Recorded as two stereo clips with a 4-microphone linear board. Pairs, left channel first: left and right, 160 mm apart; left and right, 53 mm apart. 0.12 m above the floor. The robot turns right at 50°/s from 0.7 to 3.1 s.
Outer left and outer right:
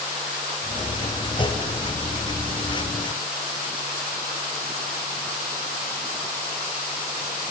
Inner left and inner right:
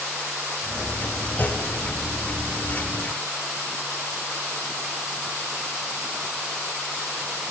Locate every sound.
1.4 s a clunk: 30° left (ahead or behind), 0.8 m; by 1.6 s 40° left (ahead or behind), 0.8 m